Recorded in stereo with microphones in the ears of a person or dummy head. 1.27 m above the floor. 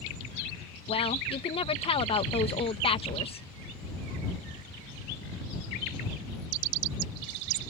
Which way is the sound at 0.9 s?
30° left (ahead or behind).